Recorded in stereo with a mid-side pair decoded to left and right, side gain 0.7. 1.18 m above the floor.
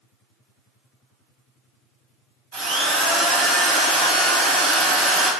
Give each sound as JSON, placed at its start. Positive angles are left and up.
{"t": 2.5, "sound": "a drill", "azimuth_deg": -65, "distance_m": 1.3}